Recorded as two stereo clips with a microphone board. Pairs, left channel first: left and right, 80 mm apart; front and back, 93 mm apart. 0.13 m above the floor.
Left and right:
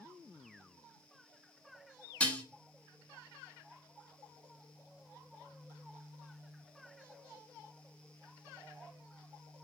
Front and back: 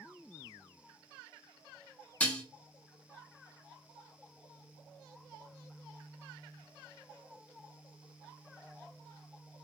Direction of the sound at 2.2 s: 45° left.